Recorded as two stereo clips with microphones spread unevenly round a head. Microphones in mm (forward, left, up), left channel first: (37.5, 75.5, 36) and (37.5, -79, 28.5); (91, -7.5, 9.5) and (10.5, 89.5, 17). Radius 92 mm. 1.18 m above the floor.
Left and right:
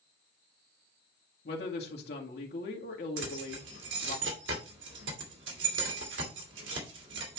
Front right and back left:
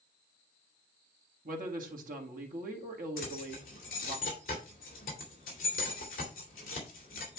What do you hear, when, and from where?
1.4 s a woman speaking: 125° left, 2 m
3.2 s keys jangling: 95° right, 2 m